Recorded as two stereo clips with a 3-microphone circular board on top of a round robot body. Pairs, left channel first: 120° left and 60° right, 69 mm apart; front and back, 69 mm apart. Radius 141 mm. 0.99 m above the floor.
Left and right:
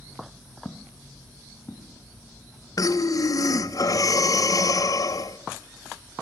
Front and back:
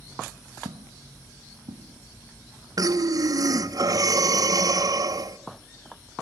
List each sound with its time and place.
0.7 s footsteps: 160° right, 1.7 m; by 3.6 s straight behind, 6 m
2.8 s breathing: 150° left, 1.3 m